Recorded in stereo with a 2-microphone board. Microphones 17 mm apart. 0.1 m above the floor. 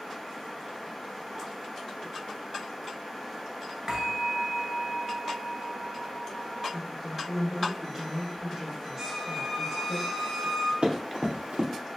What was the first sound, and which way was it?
A bell, 30° right (ahead or behind).